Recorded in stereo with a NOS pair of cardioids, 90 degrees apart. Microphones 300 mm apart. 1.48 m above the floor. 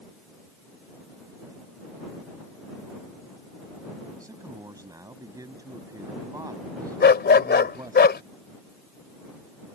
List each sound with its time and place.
4.2 s a man speaking: 10° right
7.0 s a dog barking: 35° left